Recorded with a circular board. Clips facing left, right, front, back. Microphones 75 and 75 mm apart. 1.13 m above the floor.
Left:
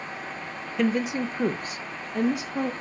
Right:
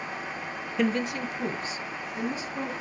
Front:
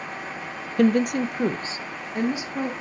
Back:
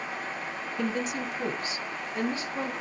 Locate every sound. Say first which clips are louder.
0.8 s a woman speaking: left 2 dB, front 11 dB; 5° right, 0.6 m; by 2.7 s 75° left, 1.7 m